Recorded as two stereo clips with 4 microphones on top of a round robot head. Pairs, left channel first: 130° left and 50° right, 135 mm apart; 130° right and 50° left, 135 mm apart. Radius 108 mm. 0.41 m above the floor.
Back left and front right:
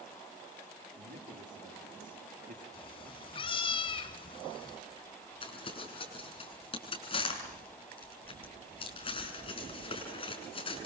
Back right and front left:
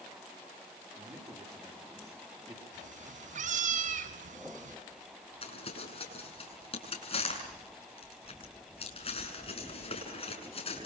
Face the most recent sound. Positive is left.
turn(degrees=180)